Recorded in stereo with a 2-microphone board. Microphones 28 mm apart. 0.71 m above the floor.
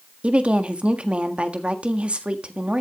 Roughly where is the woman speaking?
Right.